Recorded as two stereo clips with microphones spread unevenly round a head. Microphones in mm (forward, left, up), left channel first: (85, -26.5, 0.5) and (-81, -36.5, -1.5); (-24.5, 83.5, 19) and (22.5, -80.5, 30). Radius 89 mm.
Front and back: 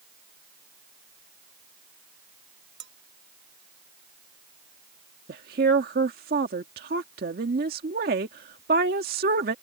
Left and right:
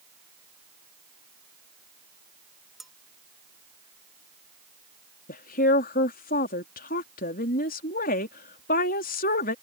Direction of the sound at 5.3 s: 145° left.